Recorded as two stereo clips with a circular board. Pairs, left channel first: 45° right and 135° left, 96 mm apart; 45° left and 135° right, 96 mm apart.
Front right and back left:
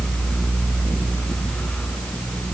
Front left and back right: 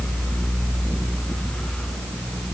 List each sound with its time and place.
Only background noise.